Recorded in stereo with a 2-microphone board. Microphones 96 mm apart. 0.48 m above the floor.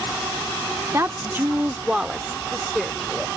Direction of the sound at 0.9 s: 30° right (ahead or behind).